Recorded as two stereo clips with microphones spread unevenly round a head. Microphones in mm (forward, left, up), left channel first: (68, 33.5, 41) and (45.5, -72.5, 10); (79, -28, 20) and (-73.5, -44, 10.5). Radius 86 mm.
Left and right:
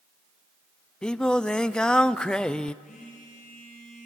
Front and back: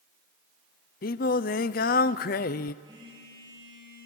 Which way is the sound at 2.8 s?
115° left.